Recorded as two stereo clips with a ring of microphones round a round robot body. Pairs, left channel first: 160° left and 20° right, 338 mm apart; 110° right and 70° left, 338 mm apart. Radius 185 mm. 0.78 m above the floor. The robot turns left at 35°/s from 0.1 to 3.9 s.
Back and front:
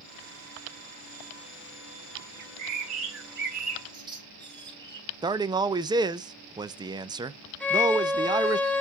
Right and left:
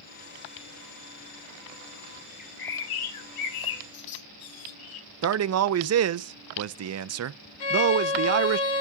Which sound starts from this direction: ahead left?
A man speaking, at 5.2 s.